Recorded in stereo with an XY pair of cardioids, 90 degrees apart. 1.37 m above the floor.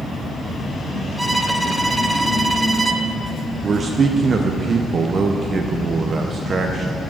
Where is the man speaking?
50° right, 0.5 m.